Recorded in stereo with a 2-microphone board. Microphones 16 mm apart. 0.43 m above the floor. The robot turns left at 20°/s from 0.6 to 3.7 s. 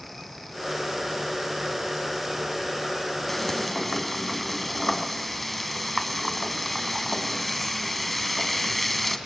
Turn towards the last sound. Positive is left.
turn(degrees=0)  # may be behind; listen again after turning